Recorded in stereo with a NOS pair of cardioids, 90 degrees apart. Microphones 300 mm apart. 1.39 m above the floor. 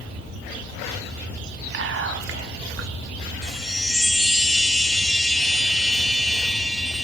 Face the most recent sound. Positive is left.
turn(degrees=0)